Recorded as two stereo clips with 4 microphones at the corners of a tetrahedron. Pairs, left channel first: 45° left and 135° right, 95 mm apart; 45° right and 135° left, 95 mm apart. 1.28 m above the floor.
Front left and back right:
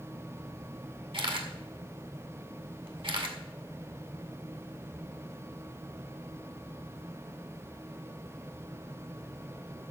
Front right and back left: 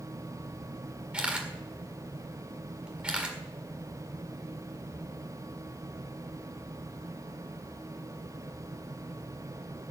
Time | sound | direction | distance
1.1 | a camera shutter | 150° right | 1.8 m